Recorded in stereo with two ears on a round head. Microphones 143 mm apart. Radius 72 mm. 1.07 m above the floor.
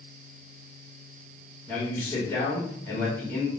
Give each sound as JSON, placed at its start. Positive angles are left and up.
{"t": 1.7, "sound": "a man speaking", "side_deg": 15, "distance_m": 1.4}